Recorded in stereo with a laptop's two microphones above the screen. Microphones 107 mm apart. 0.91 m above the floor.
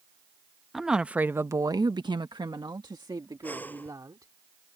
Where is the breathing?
15° left (ahead or behind).